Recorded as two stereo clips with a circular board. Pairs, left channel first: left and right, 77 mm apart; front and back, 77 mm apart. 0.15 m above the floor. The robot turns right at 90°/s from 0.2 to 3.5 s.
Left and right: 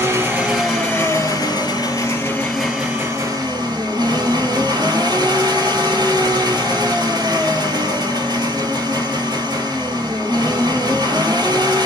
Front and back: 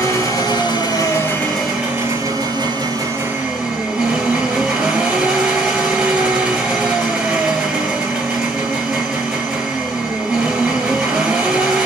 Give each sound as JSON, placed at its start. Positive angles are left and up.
{"t": 0.0, "sound": "an engine running", "azimuth_deg": -35, "distance_m": 1.1}